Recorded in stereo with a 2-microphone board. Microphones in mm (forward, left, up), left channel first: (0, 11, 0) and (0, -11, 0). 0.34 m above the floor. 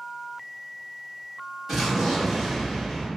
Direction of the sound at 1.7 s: 25° right (ahead or behind).